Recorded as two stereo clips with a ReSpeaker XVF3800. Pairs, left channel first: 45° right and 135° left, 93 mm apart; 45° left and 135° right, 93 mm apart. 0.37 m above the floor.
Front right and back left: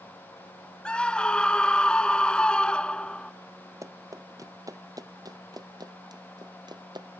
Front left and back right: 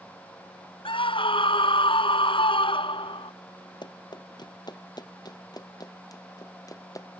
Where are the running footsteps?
80° left; by 7.1 s 95° left.